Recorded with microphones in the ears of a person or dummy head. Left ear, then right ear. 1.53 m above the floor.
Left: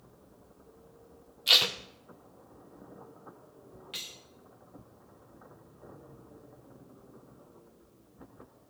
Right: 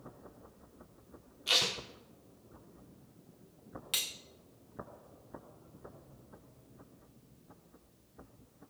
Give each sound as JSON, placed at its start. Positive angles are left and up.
{"t": 1.5, "sound": "tape being pulled", "side_deg": 25, "distance_m": 0.8}
{"t": 3.9, "sound": "cutlery clinking", "side_deg": -20, "distance_m": 0.8}